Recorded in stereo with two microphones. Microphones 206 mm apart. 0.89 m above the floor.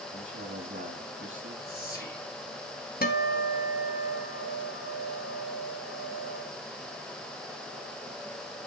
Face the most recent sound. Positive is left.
turn(degrees=45)  # may be behind; listen again after turning